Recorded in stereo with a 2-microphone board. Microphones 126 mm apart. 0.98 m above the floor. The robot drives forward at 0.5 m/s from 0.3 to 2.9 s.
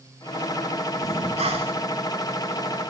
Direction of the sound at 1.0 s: 65° right (ahead or behind).